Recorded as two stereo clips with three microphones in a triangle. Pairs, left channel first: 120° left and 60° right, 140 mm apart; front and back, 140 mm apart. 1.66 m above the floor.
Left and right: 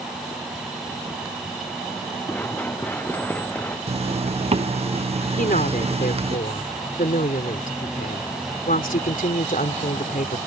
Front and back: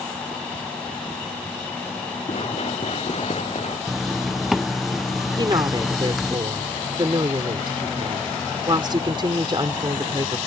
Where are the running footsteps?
45° left; by 3.8 s 40° left.